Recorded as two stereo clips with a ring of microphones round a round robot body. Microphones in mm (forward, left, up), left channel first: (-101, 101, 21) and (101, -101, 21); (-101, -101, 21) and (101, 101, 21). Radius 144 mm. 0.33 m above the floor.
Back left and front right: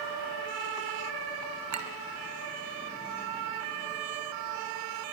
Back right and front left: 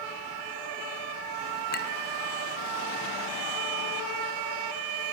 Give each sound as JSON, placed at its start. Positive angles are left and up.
{"t": 1.7, "sound": "a clink", "azimuth_deg": -80, "distance_m": 2.0}